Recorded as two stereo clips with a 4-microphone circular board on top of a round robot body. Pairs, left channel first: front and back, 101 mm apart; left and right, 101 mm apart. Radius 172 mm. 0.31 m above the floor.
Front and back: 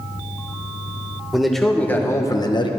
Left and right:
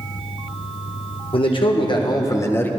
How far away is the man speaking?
About 1.4 m.